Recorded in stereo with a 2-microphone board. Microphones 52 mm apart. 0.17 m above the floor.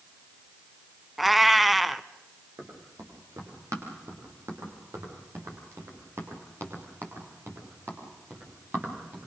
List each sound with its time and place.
1.2 s a cat meowing: centre (ahead or behind), 0.5 m
2.6 s running footsteps: 75° right (ahead or behind), 7 m; by 9.3 s 40° right (ahead or behind), 7 m